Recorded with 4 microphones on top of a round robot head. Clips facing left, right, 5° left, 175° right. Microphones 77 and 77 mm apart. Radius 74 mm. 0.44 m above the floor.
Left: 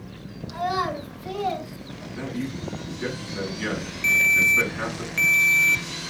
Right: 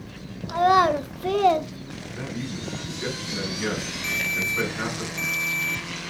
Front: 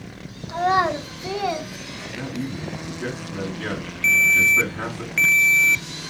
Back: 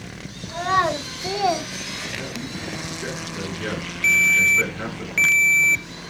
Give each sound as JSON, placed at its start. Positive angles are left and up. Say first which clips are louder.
{"t": 0.5, "sound": "a child speaking", "louder": "right 8 dB, front 1 dB", "azimuth_deg": -65, "distance_m": 1.2}
{"t": 2.1, "sound": "a man speaking", "louder": "left 3 dB, front 6 dB", "azimuth_deg": -5, "distance_m": 5.0}
{"t": 4.0, "sound": "a ringtone", "louder": "left 9 dB, front 1 dB", "azimuth_deg": 100, "distance_m": 0.6}